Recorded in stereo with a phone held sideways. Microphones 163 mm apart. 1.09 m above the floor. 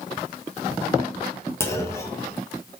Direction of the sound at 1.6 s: 15° left (ahead or behind).